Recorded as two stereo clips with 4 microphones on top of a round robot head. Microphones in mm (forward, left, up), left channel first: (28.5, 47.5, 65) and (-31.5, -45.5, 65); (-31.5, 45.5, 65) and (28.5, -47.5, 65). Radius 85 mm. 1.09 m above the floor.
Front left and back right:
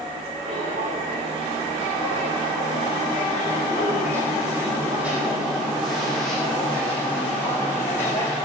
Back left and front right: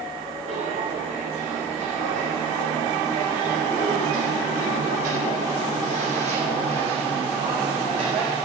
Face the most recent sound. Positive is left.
turn(degrees=-10)